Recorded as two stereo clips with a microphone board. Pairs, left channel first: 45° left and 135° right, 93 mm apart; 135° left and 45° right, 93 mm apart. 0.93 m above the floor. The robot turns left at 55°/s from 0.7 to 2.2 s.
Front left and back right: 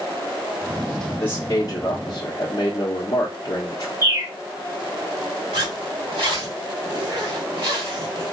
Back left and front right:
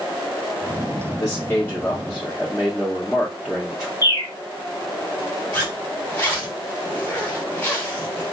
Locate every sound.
1.2 s a man speaking: 95° left, 0.8 m; by 3.9 s 40° left, 0.8 m
4.0 s a bird: 175° left, 1.0 m
5.5 s a zipper: 155° right, 1.3 m